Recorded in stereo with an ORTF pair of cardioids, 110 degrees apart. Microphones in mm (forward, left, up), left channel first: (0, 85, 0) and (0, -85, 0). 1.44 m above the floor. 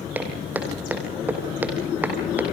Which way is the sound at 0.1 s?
10° right.